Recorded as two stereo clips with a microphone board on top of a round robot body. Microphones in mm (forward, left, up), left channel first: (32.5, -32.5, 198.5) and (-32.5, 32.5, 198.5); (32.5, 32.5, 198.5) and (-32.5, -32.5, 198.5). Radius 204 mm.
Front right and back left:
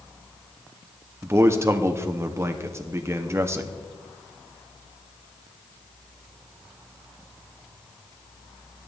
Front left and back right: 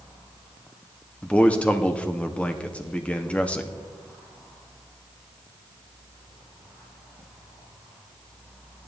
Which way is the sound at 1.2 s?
110° left.